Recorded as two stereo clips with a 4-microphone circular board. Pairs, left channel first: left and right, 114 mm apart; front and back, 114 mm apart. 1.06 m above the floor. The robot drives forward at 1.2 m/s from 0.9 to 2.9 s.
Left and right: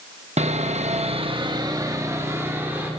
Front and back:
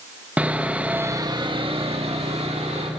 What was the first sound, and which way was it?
Sawing, 105° right.